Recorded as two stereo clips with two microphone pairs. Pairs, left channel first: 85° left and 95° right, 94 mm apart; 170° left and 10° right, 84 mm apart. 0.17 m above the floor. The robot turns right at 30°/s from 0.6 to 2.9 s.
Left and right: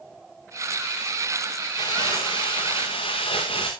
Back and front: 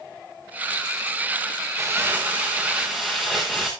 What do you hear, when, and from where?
1.8 s crumpling: 50° left, 5.5 m; by 3.7 s 80° left, 5.5 m